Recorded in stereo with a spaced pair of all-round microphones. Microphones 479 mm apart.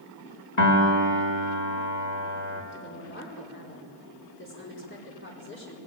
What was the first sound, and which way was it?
A piano, 80° left.